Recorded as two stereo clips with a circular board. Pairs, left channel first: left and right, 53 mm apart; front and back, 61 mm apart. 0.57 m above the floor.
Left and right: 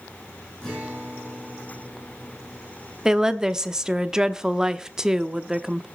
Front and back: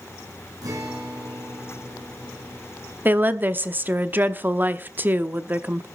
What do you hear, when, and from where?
0.6 s a guitar: 165° left, 6 m
3.0 s a woman speaking: 160° right, 0.8 m